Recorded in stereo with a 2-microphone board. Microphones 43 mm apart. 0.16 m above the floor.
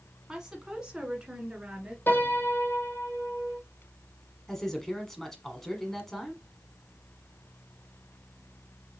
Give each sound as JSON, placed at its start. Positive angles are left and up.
{"t": 0.3, "sound": "a woman speaking", "side_deg": -15, "distance_m": 1.1}
{"t": 2.1, "sound": "a piano", "side_deg": 45, "distance_m": 1.6}
{"t": 4.5, "sound": "a man speaking", "side_deg": 10, "distance_m": 1.2}